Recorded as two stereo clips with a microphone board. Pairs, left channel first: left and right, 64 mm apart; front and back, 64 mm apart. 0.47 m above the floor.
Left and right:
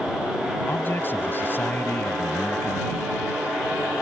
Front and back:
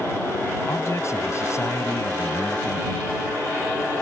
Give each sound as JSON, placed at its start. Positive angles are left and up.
{"t": 0.7, "sound": "a man speaking", "azimuth_deg": 35}